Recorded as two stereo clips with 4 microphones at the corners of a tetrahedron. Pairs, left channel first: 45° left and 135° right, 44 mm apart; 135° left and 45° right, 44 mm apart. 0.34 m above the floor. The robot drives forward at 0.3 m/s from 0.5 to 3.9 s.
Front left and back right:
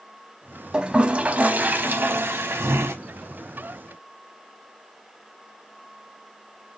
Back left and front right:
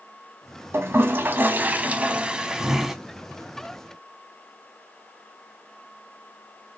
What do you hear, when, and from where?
0.7 s a toilet flushing: 65° right, 0.6 m; by 3.0 s 125° right, 0.7 m